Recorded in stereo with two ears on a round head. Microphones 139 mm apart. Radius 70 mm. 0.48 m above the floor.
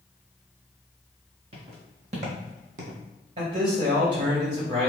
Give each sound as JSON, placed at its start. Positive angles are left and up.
{"t": 1.5, "sound": "footsteps", "side_deg": -50, "distance_m": 1.5}
{"t": 3.4, "sound": "a man speaking", "side_deg": -45, "distance_m": 1.9}